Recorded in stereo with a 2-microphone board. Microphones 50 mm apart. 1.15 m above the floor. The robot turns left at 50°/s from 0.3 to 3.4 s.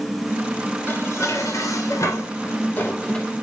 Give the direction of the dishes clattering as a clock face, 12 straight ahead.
7 o'clock.